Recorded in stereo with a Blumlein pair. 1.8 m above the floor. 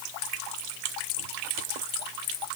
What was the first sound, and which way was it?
Only background noise.